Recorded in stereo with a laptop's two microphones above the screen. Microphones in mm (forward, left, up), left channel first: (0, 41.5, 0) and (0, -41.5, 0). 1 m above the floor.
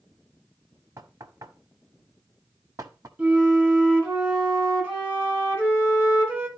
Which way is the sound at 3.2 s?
15° right (ahead or behind).